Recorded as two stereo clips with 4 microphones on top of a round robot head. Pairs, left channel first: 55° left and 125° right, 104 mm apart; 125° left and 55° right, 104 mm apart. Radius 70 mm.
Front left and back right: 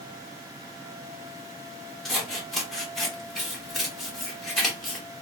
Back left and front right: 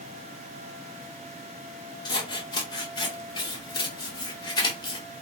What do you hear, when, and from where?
2.0 s scissors: 145° left, 1.2 m